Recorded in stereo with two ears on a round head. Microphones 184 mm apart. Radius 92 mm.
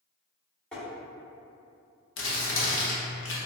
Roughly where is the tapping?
Centre.